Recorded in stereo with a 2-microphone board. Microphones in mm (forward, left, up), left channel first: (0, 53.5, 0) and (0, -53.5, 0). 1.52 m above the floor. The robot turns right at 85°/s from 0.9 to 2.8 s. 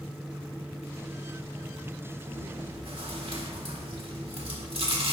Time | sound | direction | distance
2.3 | chewing | 145° right | 1.7 m